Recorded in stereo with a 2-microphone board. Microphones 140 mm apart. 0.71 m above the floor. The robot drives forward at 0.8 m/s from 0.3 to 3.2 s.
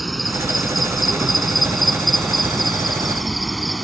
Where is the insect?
Centre (ahead or behind).